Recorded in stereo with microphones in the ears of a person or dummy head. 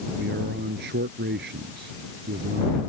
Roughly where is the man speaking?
Right.